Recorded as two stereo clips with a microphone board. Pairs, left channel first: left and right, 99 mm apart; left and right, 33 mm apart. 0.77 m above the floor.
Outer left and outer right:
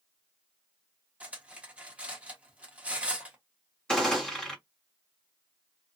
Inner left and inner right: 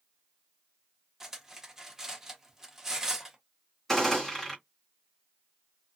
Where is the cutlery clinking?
15° right (ahead or behind), 1.0 m.